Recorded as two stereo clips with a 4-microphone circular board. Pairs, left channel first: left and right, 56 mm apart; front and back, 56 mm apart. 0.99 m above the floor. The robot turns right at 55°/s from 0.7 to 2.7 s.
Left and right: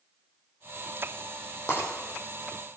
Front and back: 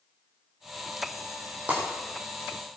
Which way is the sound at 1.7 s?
120° left.